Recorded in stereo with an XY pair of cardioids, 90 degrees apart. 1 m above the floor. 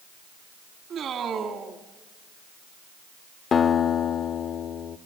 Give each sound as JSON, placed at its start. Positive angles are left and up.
{"t": 0.9, "sound": "a man speaking", "azimuth_deg": -70, "distance_m": 1.8}
{"t": 3.5, "sound": "a guitar", "azimuth_deg": 60, "distance_m": 0.8}